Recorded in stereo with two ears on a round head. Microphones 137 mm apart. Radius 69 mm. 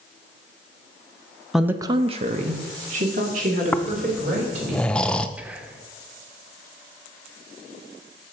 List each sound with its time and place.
1.5 s a woman speaking: centre (ahead or behind), 0.7 m; by 4.7 s 50° right (ahead or behind), 3.5 m
3.7 s snoring: 5° left (ahead or behind), 0.5 m
5.4 s whispering: 10° right (ahead or behind), 1.1 m